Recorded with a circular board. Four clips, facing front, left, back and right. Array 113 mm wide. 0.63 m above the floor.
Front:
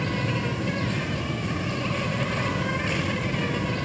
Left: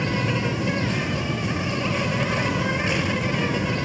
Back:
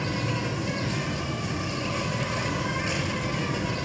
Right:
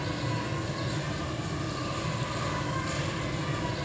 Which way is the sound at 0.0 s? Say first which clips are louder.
Left 8 dB, front 2 dB; 75° left.